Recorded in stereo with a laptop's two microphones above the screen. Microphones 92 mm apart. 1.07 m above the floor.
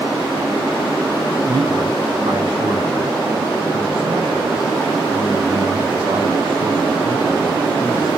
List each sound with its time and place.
1.5 s a man speaking: 75° right (ahead or behind), 4 m